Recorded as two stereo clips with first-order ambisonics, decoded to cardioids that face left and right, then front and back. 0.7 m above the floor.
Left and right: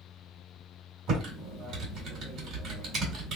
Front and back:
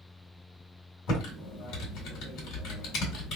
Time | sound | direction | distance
1.1 | typing on a keyboard | 35° right | 1.7 m